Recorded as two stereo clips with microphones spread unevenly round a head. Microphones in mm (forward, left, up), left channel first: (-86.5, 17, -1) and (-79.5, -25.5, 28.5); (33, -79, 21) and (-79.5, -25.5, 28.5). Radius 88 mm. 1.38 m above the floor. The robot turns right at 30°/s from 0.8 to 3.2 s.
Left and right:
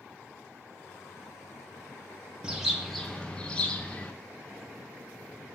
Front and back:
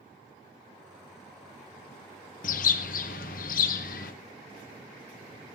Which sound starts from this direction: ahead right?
A bird, at 2.4 s.